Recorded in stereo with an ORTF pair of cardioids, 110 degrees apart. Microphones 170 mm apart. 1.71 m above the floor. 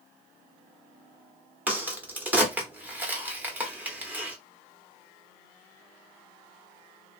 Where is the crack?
10° right, 1.0 m.